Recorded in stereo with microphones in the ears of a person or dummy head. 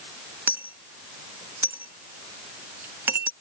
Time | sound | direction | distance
0.5 | a dropped coin | 15° right (ahead or behind) | ?